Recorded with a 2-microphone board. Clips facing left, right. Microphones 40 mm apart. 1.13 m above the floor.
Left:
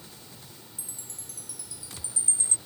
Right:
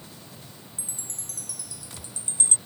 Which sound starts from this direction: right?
A chime, at 0.8 s.